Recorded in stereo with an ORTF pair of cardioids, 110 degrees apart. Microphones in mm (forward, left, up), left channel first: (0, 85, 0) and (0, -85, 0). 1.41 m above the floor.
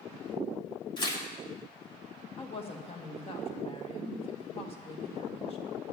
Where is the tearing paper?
30° left, 2.5 m.